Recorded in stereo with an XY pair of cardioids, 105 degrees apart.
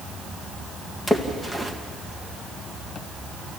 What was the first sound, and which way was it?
A splash, 5° left.